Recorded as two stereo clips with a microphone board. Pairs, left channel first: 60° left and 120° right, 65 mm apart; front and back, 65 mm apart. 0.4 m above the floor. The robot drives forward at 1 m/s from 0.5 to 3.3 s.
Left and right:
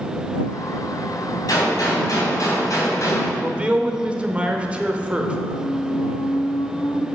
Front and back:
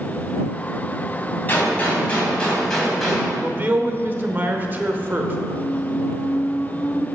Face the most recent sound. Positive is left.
turn(degrees=75)